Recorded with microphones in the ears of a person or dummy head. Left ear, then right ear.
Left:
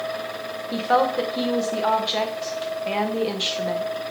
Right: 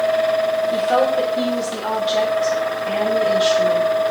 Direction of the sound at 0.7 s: 35° left (ahead or behind).